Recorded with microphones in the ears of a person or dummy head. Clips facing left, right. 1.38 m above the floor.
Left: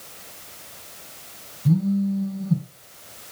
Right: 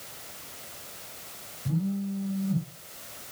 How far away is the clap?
I don't hear a clap.